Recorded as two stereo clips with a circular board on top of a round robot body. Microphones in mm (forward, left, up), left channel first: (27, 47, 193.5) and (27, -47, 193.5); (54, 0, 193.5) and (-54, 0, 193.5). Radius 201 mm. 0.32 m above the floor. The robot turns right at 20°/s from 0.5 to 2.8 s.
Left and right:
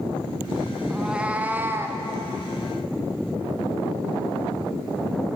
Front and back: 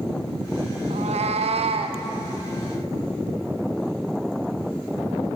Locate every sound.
0.9 s a cat meowing: 175° right, 0.6 m; by 2.0 s 150° right, 0.6 m